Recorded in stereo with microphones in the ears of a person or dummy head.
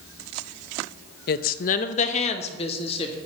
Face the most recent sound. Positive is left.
turn(degrees=30)  # may be behind; listen again after turning